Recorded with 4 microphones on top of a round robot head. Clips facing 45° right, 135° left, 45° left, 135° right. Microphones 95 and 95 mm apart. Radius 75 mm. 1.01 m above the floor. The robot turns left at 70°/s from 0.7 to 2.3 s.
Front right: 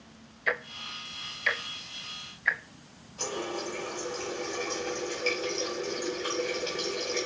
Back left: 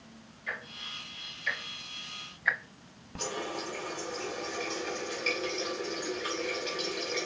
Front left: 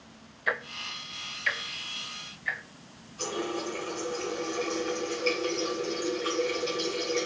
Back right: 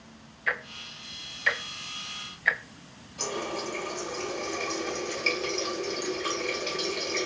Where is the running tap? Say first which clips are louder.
Front right 2 dB, front left 1 dB; 105° right, 5.5 m.